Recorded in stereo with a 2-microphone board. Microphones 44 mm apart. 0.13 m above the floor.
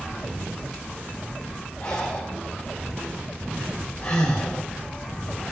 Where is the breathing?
40° left (ahead or behind), 3 m.